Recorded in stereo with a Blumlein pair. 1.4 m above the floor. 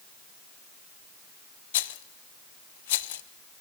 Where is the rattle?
55° left, 0.8 m.